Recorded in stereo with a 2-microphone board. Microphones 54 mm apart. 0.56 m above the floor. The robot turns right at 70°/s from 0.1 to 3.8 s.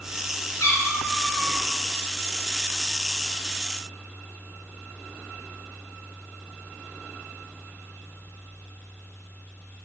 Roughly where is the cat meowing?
Left.